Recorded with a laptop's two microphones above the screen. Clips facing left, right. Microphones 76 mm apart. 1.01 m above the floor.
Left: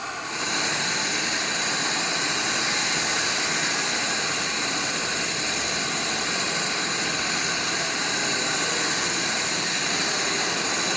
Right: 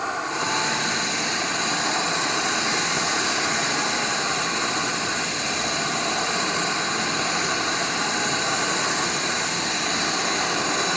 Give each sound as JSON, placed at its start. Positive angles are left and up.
{"t": 0.0, "sound": "an insect", "side_deg": -25}